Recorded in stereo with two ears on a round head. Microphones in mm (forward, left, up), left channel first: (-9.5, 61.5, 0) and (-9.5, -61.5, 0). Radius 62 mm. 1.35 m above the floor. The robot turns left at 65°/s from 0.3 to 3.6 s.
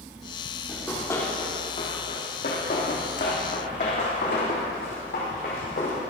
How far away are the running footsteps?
About 4 m.